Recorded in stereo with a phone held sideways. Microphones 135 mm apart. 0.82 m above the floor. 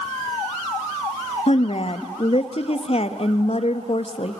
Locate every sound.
1.5 s a woman speaking: 50° left (ahead or behind), 1.4 m